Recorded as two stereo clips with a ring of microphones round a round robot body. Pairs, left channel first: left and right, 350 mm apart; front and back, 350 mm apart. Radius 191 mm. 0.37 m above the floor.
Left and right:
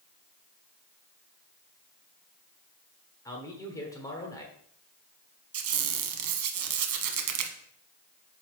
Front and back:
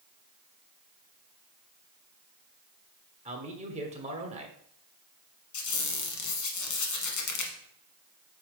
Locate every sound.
3.2 s a man speaking: 150° left, 1.3 m
5.5 s a squeak: 50° right, 1.1 m